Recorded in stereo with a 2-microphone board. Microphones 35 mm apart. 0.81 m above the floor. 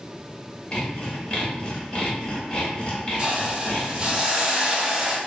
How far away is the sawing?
About 0.9 m.